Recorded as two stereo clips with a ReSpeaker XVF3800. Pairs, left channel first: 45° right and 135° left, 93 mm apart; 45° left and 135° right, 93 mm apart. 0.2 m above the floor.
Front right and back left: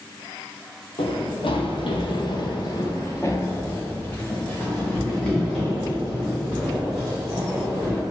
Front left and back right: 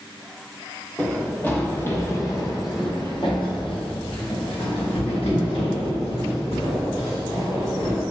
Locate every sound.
1.0 s running footsteps: 35° right, 2 m; by 8.0 s 50° left, 5.5 m